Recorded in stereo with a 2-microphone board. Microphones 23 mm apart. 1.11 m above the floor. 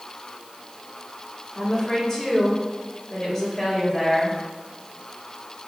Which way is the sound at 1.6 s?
15° left (ahead or behind).